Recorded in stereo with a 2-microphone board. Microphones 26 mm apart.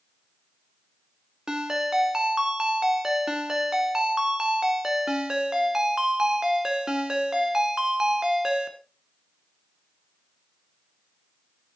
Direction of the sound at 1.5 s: 30° right (ahead or behind).